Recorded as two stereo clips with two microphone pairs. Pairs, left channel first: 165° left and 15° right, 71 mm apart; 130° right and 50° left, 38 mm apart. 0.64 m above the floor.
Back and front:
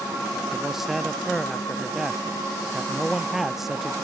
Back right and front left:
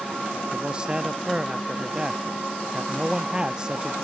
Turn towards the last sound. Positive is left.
turn(degrees=70)